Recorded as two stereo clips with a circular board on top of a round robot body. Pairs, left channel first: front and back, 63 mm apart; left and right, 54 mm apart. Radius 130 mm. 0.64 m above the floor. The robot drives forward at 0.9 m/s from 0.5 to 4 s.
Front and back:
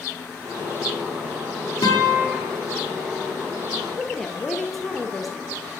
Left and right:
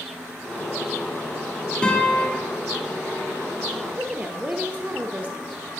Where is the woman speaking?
80° right, 0.7 m; by 5.5 s 90° right, 0.7 m.